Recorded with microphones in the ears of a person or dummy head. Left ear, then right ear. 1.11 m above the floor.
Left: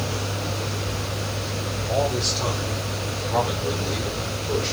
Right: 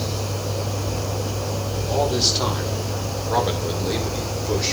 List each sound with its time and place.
1.9 s a man speaking: 40° right (ahead or behind), 4.5 m; by 4.8 s 65° right (ahead or behind), 4 m